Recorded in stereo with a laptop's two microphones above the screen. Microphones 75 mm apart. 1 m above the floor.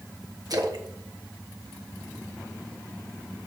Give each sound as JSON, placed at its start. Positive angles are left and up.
{"t": 0.5, "sound": "a splash", "side_deg": -55, "distance_m": 1.2}